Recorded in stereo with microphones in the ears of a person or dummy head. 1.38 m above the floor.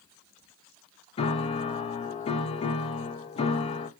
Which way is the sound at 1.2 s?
35° left (ahead or behind).